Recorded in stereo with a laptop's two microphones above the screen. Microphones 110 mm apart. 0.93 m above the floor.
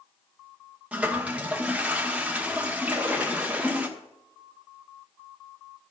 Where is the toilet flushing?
10° right (ahead or behind), 0.9 m.